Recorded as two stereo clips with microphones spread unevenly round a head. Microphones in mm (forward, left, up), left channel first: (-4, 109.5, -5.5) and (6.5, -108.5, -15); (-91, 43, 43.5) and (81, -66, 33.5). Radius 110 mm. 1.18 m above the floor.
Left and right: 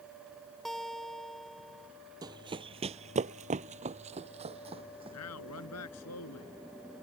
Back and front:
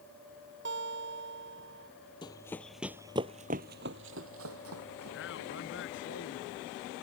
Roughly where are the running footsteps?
Behind right.